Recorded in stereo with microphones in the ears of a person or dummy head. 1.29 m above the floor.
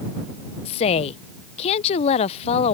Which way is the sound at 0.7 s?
30° left (ahead or behind).